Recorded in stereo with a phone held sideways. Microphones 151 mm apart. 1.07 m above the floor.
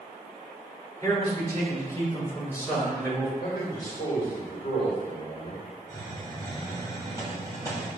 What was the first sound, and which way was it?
A man speaking, 25° left (ahead or behind).